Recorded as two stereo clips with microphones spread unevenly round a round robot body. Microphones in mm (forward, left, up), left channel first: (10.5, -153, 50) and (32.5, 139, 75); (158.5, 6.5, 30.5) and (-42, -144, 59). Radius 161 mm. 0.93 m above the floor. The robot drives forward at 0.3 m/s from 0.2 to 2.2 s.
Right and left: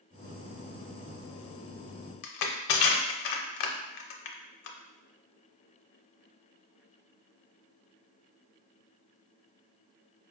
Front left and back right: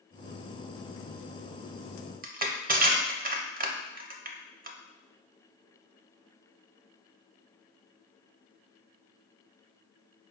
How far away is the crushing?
About 0.5 m.